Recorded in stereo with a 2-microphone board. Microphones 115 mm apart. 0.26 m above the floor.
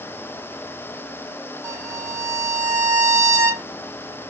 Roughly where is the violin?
Right.